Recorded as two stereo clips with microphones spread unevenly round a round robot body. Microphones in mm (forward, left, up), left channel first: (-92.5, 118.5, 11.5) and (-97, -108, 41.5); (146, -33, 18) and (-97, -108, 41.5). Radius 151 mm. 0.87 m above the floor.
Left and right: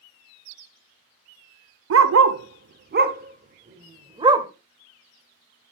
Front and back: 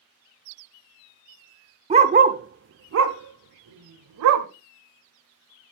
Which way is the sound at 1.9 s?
100° right.